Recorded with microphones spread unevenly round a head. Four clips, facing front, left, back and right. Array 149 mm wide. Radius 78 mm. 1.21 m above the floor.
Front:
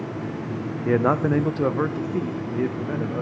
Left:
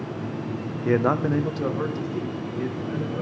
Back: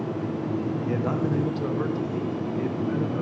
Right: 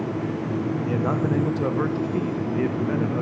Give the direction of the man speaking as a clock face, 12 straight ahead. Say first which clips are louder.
Left 6 dB, front 10 dB; 11 o'clock.